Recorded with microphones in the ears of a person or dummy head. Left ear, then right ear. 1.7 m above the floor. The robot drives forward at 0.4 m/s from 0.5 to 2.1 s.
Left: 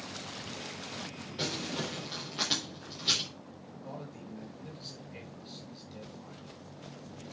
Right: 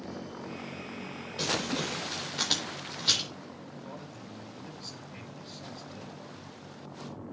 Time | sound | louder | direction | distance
1.4 | crumpling | right 4 dB | 10° right (ahead or behind) | 4.5 m
3.8 | a man speaking | left 3 dB | 10° left (ahead or behind) | 6 m